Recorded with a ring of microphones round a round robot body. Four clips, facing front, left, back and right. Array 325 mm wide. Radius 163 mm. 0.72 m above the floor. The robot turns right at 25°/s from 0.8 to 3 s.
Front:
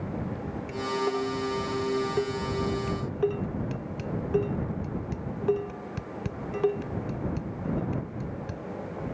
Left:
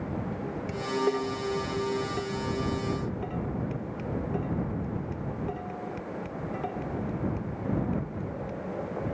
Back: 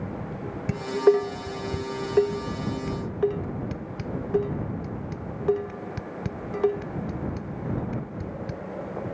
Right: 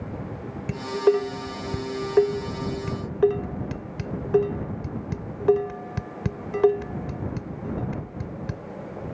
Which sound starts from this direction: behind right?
Dishes clattering, at 0.7 s.